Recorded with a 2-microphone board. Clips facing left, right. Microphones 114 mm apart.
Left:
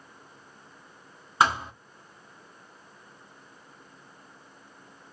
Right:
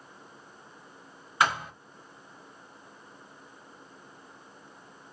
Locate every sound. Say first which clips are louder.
1.4 s a thud: left 3 dB; 30° left (ahead or behind), 1.2 m